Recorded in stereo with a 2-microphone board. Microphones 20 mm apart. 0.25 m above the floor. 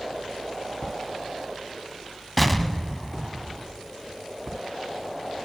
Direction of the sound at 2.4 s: 5° left (ahead or behind).